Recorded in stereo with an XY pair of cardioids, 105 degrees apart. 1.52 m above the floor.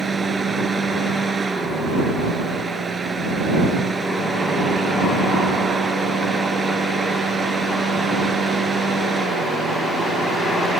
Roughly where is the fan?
Ahead right.